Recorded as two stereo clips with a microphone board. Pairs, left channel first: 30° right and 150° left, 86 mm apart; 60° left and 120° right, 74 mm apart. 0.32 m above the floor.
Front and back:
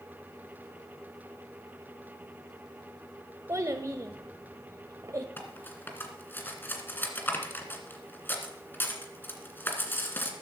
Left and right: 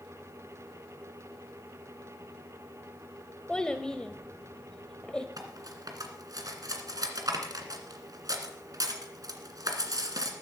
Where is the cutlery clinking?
95° right, 2 m.